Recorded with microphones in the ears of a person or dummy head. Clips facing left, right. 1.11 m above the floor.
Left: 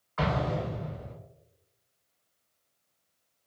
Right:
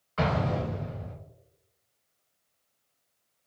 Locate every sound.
0.2 s an explosion: 40° right (ahead or behind), 1.1 m